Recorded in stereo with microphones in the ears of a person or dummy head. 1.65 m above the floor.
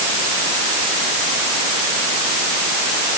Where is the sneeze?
I don't hear a sneeze.